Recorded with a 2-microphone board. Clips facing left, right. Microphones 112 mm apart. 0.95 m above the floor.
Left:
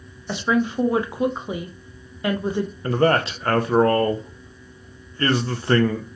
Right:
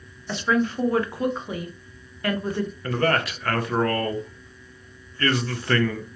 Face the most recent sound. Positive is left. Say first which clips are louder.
# left 5 dB
turn(degrees=25)  # may be behind; listen again after turning